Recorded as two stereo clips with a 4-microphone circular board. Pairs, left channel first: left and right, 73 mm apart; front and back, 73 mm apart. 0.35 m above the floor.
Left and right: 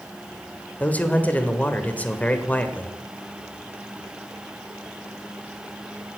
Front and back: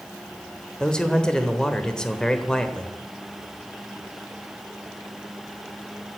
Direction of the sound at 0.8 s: 65° left.